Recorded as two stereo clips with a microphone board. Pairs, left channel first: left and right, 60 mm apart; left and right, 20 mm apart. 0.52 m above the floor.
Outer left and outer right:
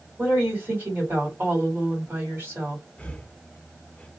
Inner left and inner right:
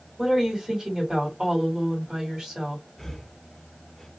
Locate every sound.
0.2 s a woman speaking: 35° right (ahead or behind), 1.8 m
3.0 s breathing: 20° left (ahead or behind), 0.5 m